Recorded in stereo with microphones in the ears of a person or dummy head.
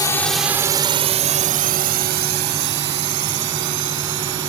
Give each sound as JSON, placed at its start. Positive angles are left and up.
{"t": 0.0, "sound": "a drone", "side_deg": 15}